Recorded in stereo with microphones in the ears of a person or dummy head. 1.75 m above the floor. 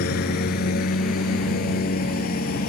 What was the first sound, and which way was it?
A lawn mower, 60° left (ahead or behind).